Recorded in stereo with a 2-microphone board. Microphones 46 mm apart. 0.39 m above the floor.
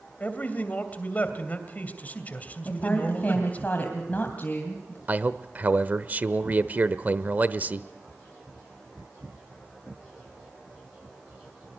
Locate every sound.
0.2 s a man speaking: 35° left (ahead or behind), 2.5 m
2.6 s a woman speaking: 40° left (ahead or behind), 2.5 m
5.1 s a man speaking: 40° right (ahead or behind), 0.9 m